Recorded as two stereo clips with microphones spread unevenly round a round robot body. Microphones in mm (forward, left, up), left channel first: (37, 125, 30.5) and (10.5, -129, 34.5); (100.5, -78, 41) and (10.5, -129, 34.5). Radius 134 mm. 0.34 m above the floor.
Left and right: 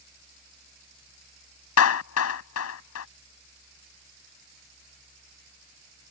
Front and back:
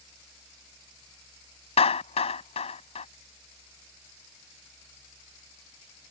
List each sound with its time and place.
1.8 s a clap: 60° left